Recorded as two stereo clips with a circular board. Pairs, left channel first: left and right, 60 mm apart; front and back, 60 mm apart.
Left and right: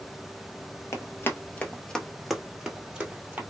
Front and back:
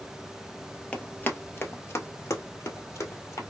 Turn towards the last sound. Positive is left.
turn(degrees=-30)